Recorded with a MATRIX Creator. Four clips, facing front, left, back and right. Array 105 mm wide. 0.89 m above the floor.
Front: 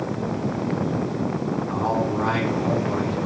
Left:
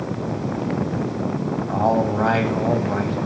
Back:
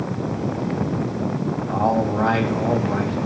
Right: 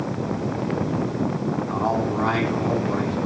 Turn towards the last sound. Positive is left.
turn(degrees=130)